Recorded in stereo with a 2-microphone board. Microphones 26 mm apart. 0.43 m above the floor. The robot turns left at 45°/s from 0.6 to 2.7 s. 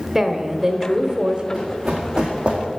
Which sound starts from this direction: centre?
Running footsteps, at 1.5 s.